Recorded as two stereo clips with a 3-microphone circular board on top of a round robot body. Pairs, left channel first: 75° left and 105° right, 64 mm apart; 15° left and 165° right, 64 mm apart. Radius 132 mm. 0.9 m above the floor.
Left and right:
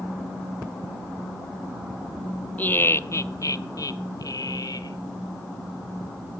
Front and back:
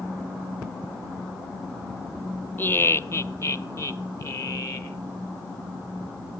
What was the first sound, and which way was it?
Laughter, 35° left.